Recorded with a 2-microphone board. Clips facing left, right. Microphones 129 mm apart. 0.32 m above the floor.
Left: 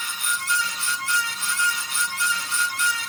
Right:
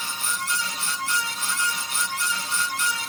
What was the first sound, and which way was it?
Only background noise.